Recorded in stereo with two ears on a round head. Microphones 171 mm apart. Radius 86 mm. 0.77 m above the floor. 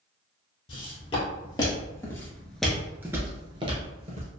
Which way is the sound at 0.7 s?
30° left (ahead or behind).